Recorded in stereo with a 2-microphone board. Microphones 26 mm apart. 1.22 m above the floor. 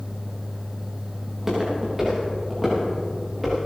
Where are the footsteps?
20° right (ahead or behind), 6 m; by 3.6 s 5° right (ahead or behind), 7.5 m.